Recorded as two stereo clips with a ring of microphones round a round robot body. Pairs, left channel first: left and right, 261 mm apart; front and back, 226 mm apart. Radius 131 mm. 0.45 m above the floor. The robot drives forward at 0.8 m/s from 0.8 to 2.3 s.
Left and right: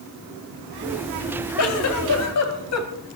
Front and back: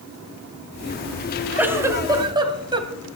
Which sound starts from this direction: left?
A giggle, at 1.6 s.